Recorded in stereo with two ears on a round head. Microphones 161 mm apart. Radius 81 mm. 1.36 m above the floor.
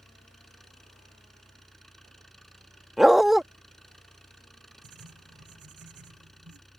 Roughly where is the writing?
Right.